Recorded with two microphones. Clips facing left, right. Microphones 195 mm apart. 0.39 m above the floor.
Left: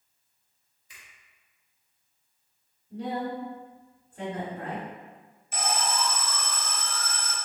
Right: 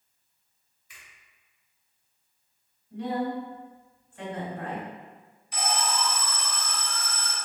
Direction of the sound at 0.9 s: 30° left (ahead or behind).